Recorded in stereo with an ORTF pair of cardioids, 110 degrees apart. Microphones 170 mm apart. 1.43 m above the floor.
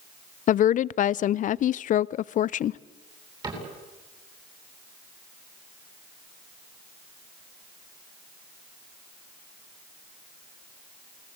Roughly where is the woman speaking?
Ahead left.